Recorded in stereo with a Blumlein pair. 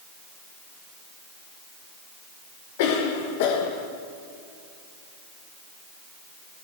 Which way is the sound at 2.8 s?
50° left.